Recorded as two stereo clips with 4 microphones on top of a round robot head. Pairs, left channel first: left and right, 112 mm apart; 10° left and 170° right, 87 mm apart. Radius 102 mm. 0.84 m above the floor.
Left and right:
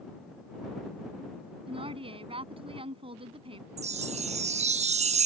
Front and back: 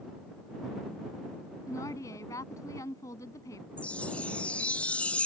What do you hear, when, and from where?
1.7 s a woman speaking: 50° right
3.8 s a chime: 70° right